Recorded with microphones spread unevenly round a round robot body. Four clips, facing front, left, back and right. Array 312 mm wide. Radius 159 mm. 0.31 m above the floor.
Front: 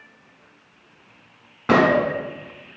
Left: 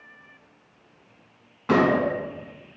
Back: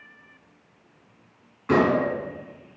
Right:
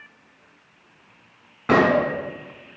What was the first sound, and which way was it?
A gunshot, 25° right.